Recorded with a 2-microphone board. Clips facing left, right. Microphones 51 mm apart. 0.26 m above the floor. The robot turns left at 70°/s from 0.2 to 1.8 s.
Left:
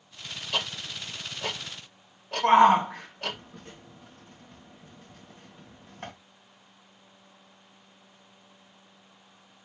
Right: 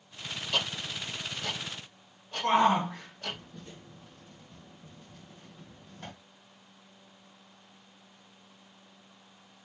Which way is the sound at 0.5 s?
5° left (ahead or behind).